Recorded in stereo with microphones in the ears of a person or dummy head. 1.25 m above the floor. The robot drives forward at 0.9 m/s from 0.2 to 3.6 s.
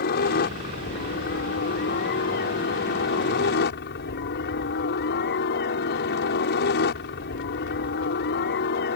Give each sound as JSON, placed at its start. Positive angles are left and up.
{"t": 0.0, "sound": "a helicopter", "side_deg": 50}